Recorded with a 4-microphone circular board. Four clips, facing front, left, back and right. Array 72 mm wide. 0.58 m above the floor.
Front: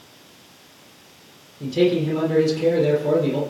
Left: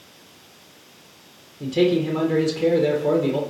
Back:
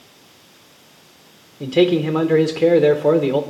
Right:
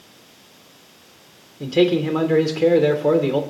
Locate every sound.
1.6 s a man speaking: 155° right, 1.7 m